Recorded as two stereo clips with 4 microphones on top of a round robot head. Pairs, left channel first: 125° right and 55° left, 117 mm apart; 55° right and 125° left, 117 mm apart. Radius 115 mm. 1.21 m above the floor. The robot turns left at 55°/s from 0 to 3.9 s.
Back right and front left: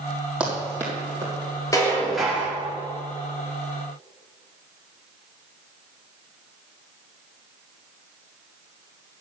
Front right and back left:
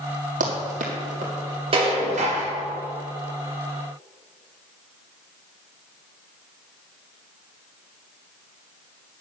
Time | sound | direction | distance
0.4 | running footsteps | 135° left | 2 m
1.7 | dishes clattering | 170° left | 2 m